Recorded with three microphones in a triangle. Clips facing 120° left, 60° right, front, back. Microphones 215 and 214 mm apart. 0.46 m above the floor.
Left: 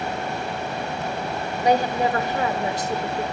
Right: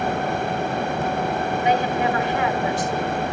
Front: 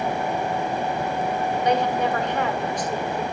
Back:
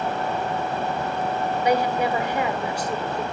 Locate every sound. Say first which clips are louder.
1.6 s a woman speaking: left 3 dB, back 1 dB; 105° left, 1.4 m